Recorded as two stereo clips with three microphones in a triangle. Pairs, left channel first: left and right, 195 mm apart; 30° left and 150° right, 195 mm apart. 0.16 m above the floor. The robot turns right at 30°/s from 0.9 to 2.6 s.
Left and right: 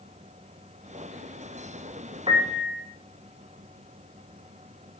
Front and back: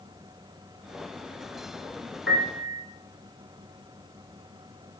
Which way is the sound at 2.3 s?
150° right.